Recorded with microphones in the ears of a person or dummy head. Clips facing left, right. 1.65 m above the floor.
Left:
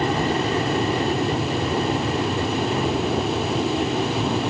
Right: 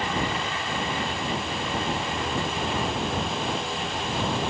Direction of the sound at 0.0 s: 35° left (ahead or behind).